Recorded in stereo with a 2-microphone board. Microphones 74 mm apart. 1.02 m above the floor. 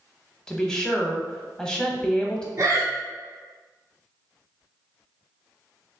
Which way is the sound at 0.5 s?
10° left (ahead or behind).